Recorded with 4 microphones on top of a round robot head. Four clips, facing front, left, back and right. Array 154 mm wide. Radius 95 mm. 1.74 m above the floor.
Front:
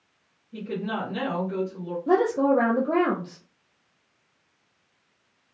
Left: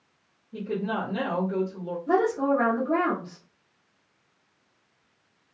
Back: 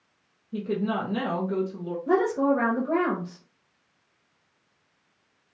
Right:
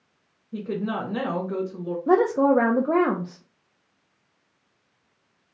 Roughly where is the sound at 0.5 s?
Behind right.